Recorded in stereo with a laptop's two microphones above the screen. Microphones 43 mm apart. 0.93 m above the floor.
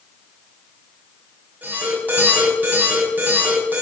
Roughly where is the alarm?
Right.